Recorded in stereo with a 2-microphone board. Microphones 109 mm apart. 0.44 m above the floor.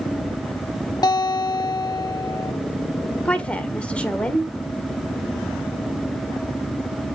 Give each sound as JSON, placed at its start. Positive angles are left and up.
{"t": 1.0, "sound": "a guitar", "side_deg": 40, "distance_m": 0.6}
{"t": 3.2, "sound": "a woman speaking", "side_deg": 10, "distance_m": 1.1}